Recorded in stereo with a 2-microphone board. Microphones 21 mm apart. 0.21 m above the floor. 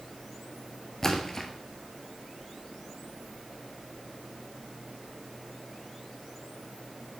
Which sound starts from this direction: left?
A splash, at 1.0 s.